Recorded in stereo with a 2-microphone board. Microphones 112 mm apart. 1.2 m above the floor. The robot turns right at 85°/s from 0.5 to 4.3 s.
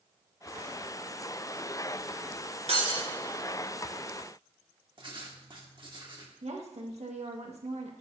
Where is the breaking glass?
75° right, 3 m; by 3.0 s 45° right, 3 m.